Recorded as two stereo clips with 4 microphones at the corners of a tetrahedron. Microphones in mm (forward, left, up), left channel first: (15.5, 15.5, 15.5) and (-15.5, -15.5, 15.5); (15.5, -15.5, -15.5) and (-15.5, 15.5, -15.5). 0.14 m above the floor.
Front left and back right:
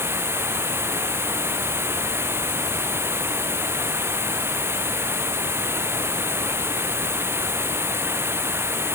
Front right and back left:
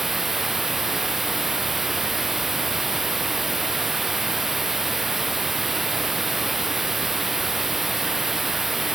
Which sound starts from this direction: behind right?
Running water, at 0.0 s.